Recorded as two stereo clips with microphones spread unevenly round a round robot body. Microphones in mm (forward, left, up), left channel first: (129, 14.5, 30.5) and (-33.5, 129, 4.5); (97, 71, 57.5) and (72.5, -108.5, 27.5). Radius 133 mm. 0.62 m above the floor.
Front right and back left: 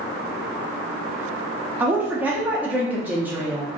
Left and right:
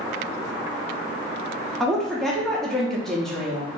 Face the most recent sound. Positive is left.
turn(degrees=-170)